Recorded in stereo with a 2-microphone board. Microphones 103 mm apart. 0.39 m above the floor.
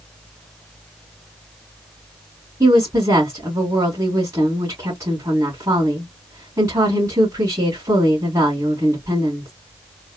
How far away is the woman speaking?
About 2.5 m.